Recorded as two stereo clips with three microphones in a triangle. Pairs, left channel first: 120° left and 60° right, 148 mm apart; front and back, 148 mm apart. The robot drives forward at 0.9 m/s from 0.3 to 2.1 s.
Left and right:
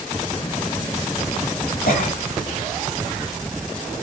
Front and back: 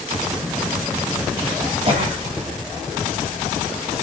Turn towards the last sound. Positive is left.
turn(degrees=130)